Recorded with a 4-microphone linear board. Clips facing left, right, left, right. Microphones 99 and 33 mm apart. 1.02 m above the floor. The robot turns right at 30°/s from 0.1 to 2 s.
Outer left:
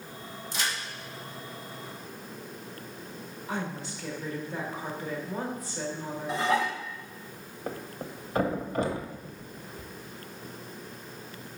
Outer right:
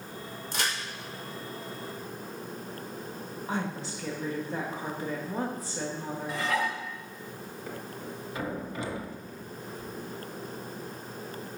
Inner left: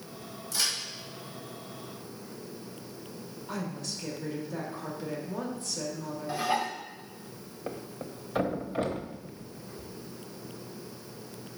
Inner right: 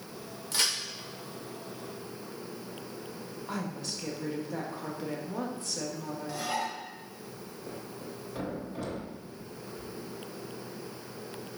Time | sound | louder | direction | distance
0.5 | a crack | outer right 1 dB, inner right 1 dB | 60° right (ahead or behind) | 1.8 m
3.5 | a woman speaking | outer right 1 dB, even | 30° right (ahead or behind) | 1.4 m
6.3 | dishes clattering | outer left 3 dB, inner left 4 dB | 25° left (ahead or behind) | 0.8 m
7.7 | a thud | outer left 4 dB, inner left 4 dB | 45° left (ahead or behind) | 0.8 m